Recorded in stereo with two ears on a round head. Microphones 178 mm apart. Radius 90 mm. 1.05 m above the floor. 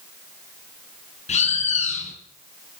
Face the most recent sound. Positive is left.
turn(degrees=40)  # may be behind; listen again after turning